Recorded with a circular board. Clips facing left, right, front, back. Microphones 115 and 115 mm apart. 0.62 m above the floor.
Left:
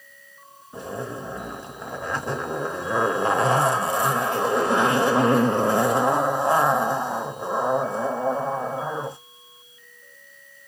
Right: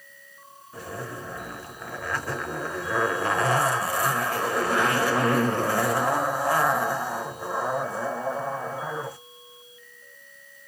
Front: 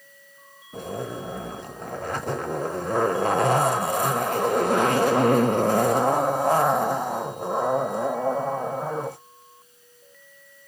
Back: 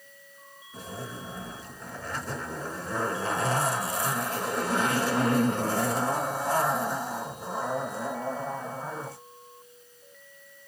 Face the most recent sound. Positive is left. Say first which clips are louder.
# left 4 dB, front 8 dB
turn(degrees=25)